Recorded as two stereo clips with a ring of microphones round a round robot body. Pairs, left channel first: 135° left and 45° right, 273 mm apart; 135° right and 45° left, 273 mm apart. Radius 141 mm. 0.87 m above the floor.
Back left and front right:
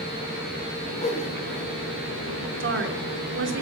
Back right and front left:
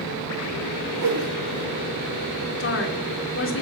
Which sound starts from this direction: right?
A woman speaking, at 2.6 s.